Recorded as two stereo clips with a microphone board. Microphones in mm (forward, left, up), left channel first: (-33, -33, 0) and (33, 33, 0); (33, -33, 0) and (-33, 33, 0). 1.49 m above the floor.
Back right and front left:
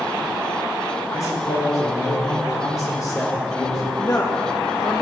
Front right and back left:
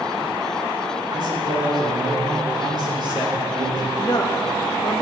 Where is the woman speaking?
85° right, 2.0 m.